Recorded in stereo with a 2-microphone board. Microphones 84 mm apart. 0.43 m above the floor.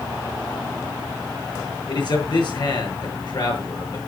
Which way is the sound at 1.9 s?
55° left (ahead or behind).